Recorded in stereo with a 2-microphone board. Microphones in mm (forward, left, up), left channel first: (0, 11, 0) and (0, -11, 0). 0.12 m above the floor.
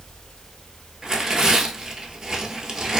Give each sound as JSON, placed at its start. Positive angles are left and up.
{"t": 1.0, "sound": "tearing paper", "side_deg": -25, "distance_m": 0.7}